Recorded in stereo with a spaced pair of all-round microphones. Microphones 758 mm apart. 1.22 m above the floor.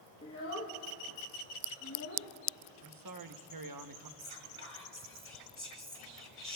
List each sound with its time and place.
0.2 s a child speaking: 20° left (ahead or behind), 1.0 m
2.8 s a man speaking: 30° right (ahead or behind), 0.7 m
4.2 s whispering: 40° left (ahead or behind), 2.5 m